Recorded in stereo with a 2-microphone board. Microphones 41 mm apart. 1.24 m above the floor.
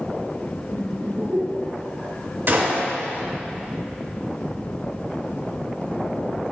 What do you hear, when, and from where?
0.7 s laughter: 85° right, 2 m; by 2.1 s 70° right (ahead or behind), 4 m
2.5 s a gunshot: 60° right (ahead or behind), 3 m